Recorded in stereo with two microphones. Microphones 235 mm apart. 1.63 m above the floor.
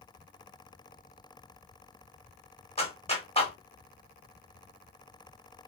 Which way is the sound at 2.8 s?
25° left (ahead or behind).